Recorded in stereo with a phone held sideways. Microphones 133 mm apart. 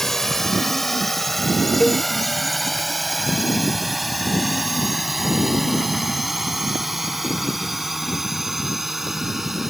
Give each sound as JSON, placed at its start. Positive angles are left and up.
{"t": 0.0, "sound": "a drone", "side_deg": 5}
{"t": 1.8, "sound": "a cowbell", "side_deg": 0}